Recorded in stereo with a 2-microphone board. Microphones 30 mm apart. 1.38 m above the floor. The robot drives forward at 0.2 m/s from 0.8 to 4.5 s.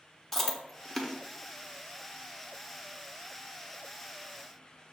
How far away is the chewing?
About 0.7 m.